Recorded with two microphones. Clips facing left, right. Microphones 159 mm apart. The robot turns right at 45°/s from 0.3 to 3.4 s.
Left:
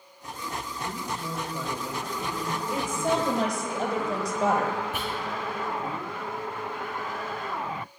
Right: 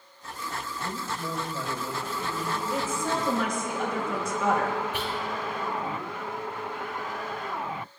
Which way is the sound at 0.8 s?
40° right.